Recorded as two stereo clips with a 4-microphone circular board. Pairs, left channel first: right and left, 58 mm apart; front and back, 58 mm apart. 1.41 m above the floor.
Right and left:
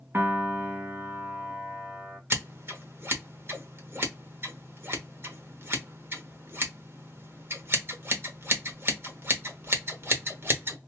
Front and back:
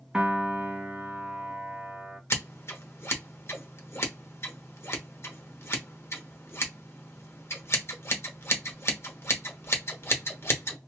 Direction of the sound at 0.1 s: 115° left.